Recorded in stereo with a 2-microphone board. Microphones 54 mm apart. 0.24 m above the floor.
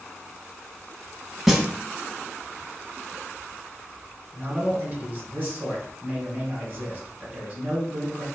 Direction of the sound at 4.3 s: 35° right (ahead or behind).